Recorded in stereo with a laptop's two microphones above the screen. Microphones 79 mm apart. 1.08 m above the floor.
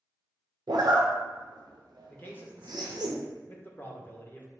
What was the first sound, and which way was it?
A zipper, 65° right (ahead or behind).